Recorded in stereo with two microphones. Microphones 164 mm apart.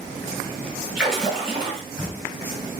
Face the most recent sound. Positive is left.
turn(degrees=-5)  # may be behind; listen again after turning